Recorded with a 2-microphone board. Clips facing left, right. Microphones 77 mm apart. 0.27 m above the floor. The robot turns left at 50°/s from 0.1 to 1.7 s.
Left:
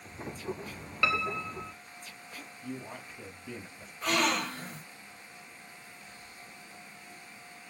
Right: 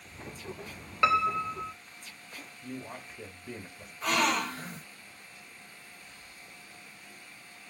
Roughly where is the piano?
Right.